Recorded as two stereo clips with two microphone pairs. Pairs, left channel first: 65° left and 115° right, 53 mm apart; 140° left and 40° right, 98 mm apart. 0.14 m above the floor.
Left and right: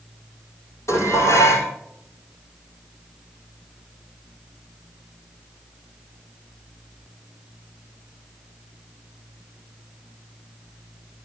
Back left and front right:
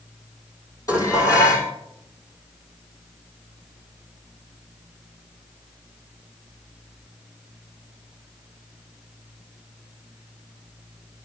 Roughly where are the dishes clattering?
Left.